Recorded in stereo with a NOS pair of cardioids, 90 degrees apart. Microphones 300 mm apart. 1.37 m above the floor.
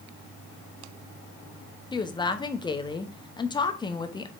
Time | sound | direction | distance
1.9 | a woman speaking | 15° left | 0.6 m